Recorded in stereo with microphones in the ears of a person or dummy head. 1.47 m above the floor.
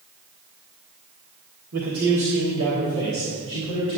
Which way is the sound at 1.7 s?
65° right (ahead or behind).